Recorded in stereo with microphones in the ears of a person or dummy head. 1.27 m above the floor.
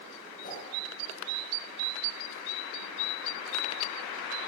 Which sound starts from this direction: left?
A whoosh, at 0.4 s.